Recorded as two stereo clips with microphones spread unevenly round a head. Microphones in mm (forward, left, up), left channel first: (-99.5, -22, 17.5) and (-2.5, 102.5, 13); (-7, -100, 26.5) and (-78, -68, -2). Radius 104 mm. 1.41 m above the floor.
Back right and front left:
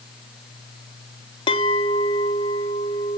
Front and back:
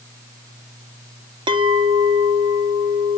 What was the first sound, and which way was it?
A clink, 175° left.